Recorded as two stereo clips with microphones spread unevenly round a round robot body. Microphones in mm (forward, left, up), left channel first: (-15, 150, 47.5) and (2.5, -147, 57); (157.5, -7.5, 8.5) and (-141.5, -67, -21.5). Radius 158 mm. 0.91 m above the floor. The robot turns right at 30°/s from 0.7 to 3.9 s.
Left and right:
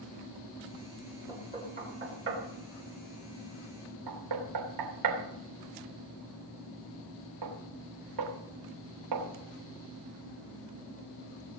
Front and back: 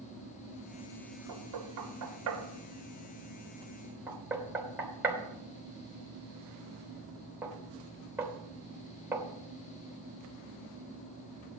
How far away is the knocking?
About 3 m.